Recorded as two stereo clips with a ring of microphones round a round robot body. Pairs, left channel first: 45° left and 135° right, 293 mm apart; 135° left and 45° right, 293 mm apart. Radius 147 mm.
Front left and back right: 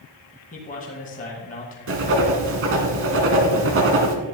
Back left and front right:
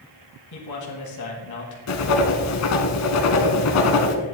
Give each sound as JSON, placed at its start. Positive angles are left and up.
{"t": 0.5, "sound": "a man speaking", "azimuth_deg": 110, "distance_m": 2.0}
{"t": 1.9, "sound": "writing", "azimuth_deg": 175, "distance_m": 1.5}